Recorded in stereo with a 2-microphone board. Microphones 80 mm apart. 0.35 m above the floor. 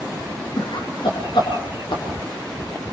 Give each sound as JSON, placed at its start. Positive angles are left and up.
{"t": 0.6, "sound": "laughter", "side_deg": 75, "distance_m": 5.0}